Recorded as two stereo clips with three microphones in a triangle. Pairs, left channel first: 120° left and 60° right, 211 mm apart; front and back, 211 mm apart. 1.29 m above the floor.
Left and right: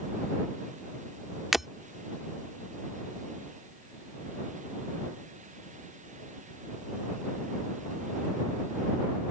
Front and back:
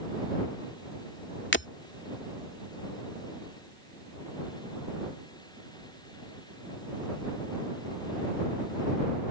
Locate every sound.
1.5 s breaking glass: 30° left